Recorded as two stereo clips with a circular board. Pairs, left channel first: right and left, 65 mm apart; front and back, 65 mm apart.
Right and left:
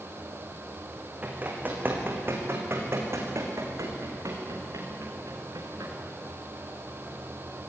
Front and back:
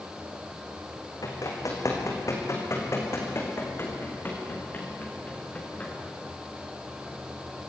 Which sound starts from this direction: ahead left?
Running footsteps, at 1.2 s.